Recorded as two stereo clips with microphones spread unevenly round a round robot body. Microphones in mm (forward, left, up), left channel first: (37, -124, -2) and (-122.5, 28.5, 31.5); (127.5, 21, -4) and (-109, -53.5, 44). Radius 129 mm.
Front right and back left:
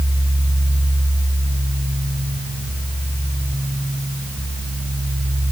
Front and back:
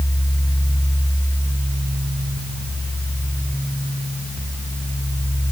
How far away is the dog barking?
No dog barking in this recording.